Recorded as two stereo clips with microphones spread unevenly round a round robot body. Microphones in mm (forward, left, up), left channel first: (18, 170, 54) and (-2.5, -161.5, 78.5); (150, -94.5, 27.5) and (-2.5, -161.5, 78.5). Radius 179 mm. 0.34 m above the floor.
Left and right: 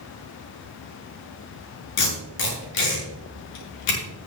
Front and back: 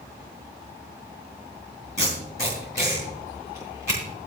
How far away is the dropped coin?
I don't hear a dropped coin.